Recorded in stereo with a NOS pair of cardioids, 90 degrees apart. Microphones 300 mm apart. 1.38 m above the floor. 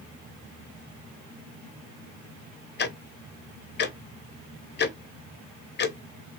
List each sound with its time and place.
2.8 s ticking: 35° left, 0.7 m